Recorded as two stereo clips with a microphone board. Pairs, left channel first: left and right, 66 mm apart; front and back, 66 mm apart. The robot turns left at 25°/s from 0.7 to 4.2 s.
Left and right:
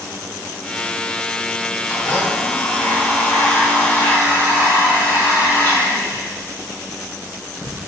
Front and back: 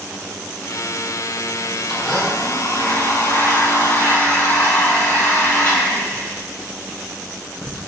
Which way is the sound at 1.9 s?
100° left.